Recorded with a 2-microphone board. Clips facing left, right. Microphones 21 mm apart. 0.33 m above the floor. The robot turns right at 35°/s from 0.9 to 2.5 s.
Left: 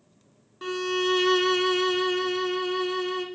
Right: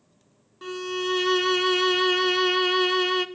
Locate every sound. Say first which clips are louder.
0.6 s a violin: left 3 dB; 170° left, 0.7 m; by 3.3 s 135° right, 0.7 m